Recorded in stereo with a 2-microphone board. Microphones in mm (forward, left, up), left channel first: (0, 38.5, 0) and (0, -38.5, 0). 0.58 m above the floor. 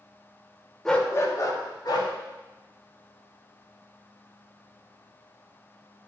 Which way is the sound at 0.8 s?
5° left (ahead or behind).